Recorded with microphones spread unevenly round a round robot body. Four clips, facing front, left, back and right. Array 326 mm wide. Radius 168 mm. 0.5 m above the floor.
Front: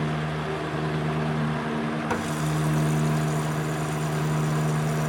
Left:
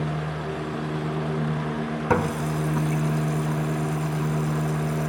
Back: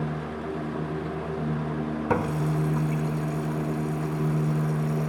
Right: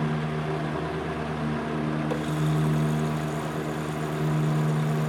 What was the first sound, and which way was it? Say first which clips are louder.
A running tap: left 3 dB, back 1 dB; 95° left.